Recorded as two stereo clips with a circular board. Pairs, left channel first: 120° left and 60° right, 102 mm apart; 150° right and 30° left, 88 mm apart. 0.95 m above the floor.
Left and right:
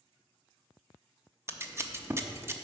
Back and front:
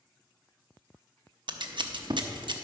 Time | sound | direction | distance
1.5 | scissors | 5° left | 0.7 m